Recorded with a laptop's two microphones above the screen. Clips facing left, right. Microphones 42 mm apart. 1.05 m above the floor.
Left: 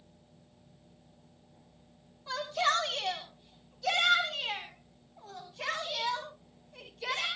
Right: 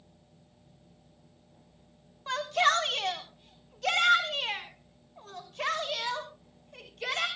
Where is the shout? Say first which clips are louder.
Right 4 dB; 65° right (ahead or behind), 3 m; by 7.3 s 70° right (ahead or behind), 7.5 m.